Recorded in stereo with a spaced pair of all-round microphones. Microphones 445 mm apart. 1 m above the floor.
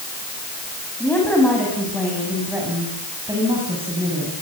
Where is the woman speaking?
5° left (ahead or behind), 7 m; by 4.3 s 15° right (ahead or behind), 8 m.